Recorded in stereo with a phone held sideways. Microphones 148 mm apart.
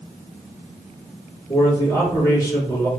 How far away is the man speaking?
About 1.6 m.